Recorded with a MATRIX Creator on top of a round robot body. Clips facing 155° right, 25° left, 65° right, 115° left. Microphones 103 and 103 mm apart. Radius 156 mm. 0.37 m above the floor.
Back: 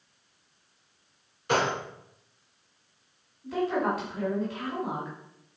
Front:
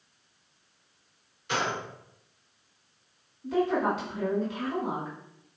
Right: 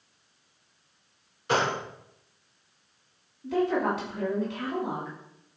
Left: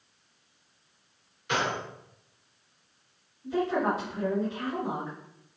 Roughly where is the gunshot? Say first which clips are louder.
Back 4 dB, right 3 dB; behind right.